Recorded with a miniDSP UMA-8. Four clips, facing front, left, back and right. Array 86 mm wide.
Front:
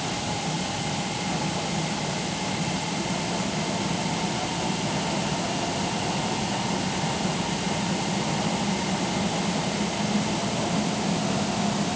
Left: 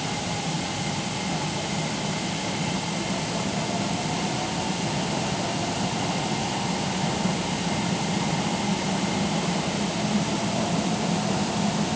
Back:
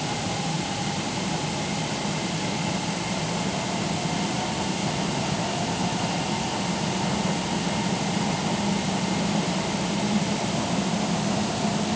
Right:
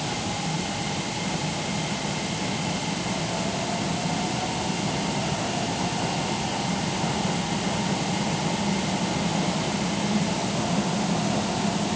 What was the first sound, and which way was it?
Only background noise.